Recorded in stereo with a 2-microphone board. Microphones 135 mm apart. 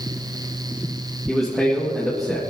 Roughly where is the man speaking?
Centre.